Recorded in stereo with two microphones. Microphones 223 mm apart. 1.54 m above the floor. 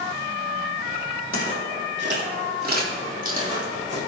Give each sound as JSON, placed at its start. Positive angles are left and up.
{"t": 1.3, "sound": "footsteps", "side_deg": -60, "distance_m": 3.5}